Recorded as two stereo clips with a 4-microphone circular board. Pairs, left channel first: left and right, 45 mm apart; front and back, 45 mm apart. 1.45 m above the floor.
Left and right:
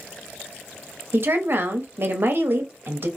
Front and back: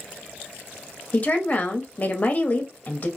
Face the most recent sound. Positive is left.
turn(degrees=-50)